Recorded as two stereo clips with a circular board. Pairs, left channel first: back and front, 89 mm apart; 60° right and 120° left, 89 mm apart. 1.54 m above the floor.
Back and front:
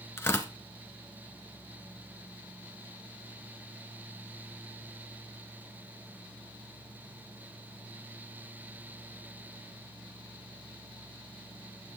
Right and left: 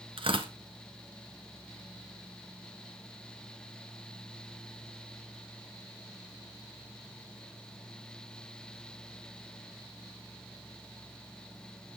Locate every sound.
0.2 s tearing paper: 120° left, 1.6 m